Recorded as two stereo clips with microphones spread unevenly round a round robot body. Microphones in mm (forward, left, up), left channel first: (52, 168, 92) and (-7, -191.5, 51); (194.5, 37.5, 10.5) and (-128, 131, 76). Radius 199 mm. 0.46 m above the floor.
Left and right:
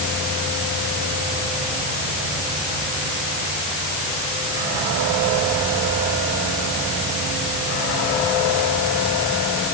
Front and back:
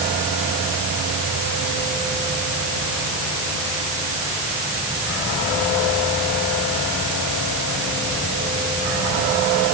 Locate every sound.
Only background noise.